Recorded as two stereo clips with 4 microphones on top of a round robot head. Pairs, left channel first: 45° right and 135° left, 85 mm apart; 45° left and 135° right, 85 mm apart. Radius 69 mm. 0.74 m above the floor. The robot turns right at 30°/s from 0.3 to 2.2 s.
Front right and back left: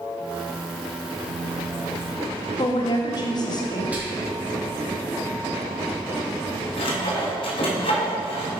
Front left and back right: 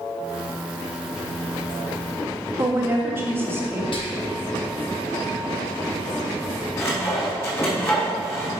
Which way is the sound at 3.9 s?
60° left.